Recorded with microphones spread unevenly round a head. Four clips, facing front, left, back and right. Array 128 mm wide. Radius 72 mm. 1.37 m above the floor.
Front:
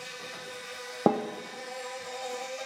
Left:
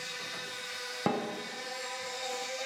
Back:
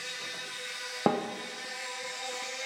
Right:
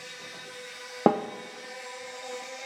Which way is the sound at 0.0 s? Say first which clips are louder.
Left 2 dB, front 1 dB; 10° left.